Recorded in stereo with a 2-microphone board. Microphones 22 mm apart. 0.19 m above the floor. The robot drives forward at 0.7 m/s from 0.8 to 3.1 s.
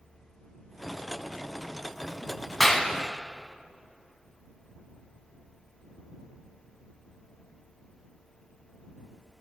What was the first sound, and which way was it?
A clap, 5° left (ahead or behind).